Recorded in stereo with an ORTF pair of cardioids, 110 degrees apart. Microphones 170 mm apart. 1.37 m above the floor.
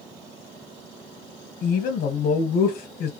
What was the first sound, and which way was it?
A woman speaking, 55° left.